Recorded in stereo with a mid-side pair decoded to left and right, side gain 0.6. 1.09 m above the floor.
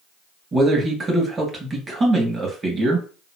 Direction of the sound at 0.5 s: 25° right.